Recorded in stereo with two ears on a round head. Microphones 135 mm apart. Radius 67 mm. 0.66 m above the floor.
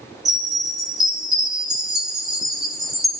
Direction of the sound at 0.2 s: 5° right (ahead or behind).